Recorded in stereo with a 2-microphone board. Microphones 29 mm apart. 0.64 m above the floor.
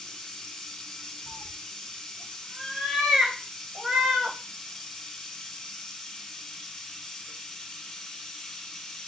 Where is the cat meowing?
30° right (ahead or behind), 0.9 m.